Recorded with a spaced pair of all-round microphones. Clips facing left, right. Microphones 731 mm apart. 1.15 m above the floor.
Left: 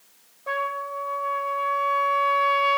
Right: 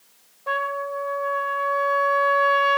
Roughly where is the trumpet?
Right.